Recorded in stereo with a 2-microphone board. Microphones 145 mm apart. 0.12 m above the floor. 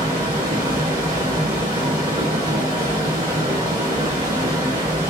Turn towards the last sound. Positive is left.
turn(degrees=-25)  # may be behind; listen again after turning